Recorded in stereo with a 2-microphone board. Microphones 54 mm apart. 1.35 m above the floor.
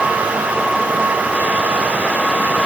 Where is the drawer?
No drawer in this recording.